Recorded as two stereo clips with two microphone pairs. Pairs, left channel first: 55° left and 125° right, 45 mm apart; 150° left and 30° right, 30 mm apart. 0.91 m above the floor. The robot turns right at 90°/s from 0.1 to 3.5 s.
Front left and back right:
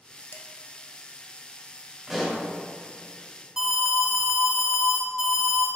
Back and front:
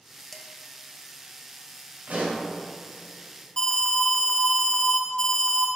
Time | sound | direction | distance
0.3 | dishes clattering | 75° left | 0.8 m
2.1 | a pop | 45° right | 2.5 m
3.6 | an alarm | 165° left | 1.0 m